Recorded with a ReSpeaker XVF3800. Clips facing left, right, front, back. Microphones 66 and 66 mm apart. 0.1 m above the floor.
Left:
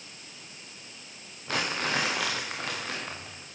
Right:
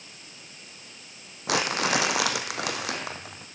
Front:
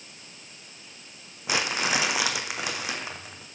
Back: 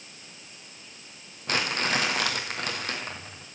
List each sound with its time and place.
1.5 s crumpling: 80° right, 1.7 m